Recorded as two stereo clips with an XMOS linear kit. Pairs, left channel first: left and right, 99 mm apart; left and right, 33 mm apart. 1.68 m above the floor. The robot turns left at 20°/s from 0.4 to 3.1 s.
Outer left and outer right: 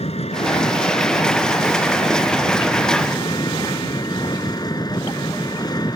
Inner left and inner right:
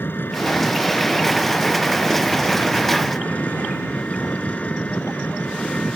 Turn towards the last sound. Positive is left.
turn(degrees=40)